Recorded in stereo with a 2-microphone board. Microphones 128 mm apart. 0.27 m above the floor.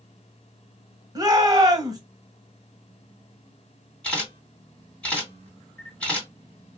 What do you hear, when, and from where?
1.1 s a shout: 35° right (ahead or behind), 1.1 m
4.0 s a camera shutter: 10° left (ahead or behind), 2.5 m